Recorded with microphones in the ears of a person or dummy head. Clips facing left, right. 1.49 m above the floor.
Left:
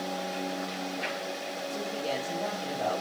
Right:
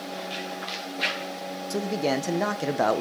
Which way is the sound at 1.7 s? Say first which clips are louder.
Right 8 dB; 70° right (ahead or behind).